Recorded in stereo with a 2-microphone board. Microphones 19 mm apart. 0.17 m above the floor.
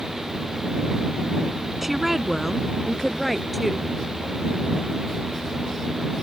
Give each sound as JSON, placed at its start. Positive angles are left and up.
{"t": 1.8, "sound": "a woman speaking", "side_deg": -20}